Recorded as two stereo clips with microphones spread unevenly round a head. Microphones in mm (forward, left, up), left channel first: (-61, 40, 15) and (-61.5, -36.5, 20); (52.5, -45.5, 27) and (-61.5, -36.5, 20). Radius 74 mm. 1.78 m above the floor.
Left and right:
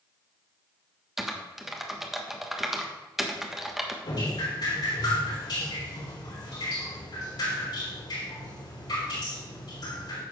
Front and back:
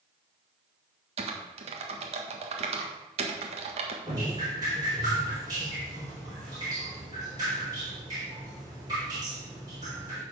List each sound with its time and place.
1.2 s typing on a keyboard: 170° right, 1.3 m
4.0 s dripping: 110° left, 4 m